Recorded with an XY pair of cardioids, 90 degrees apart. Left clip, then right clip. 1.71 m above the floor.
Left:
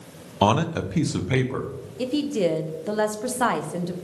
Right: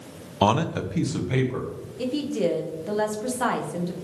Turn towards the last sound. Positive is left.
turn(degrees=35)